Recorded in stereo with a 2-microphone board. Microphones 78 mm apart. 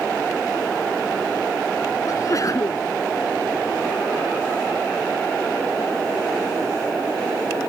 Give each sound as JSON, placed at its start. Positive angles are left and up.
{"t": 2.0, "sound": "a sneeze", "side_deg": 50}